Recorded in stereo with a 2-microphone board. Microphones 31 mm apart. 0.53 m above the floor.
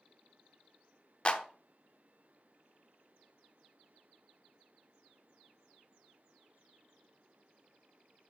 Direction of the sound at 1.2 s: 30° left (ahead or behind).